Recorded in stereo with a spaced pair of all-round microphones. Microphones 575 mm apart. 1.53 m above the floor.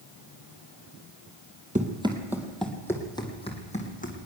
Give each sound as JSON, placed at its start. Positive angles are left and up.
{"t": 1.8, "sound": "running footsteps", "side_deg": -15, "distance_m": 2.0}